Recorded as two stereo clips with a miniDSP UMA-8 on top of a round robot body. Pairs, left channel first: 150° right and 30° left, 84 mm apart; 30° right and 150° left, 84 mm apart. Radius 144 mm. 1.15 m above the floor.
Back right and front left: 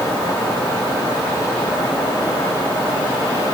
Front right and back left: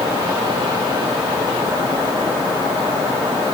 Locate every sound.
Only background noise.